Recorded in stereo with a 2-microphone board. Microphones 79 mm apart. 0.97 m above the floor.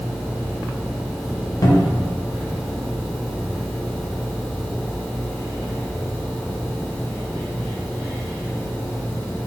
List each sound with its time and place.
1.6 s a cupboard door: 55° left (ahead or behind), 0.7 m